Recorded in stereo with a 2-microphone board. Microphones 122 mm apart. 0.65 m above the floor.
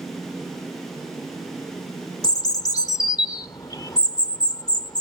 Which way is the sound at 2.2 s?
30° left (ahead or behind).